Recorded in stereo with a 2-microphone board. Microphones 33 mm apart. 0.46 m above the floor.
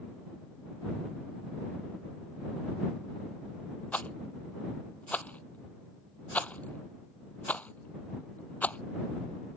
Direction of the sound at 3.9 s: 50° left (ahead or behind).